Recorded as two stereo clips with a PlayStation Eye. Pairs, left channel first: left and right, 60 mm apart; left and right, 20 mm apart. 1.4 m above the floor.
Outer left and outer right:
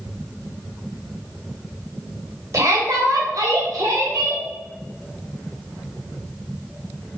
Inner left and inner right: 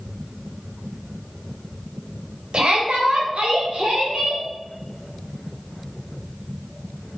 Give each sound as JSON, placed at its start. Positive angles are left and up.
{"t": 2.5, "sound": "a shout", "side_deg": -65, "distance_m": 1.2}